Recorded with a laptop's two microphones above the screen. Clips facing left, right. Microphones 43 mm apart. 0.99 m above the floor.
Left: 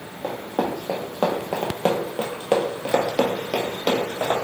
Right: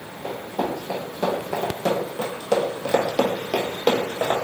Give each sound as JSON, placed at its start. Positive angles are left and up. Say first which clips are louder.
{"t": 0.2, "sound": "running footsteps", "louder": "left 1 dB", "side_deg": 55, "distance_m": 1.9}